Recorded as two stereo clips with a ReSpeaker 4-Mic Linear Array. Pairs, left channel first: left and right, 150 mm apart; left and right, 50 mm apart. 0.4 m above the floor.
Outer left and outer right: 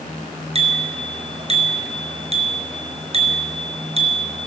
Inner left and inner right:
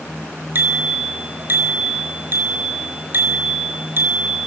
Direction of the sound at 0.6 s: 45° right (ahead or behind).